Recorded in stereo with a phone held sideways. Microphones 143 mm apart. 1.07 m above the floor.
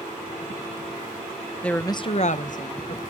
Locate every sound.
1.6 s a woman speaking: 10° left (ahead or behind), 0.8 m; by 3.0 s 55° left (ahead or behind), 1.2 m